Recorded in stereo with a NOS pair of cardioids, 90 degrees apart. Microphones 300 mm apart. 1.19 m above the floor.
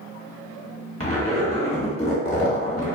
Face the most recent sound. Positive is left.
turn(degrees=20)